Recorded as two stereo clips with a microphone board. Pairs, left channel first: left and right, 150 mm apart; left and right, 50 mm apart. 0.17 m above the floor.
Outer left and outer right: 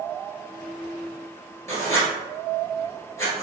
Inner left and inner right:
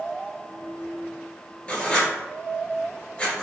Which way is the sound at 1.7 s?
20° left (ahead or behind).